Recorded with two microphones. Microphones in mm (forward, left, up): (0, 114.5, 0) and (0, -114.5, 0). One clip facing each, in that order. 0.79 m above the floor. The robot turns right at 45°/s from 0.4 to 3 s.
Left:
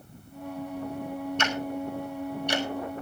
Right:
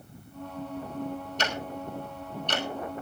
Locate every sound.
1.4 s ticking: 40° right (ahead or behind), 4 m; by 2.7 s 20° left (ahead or behind), 4 m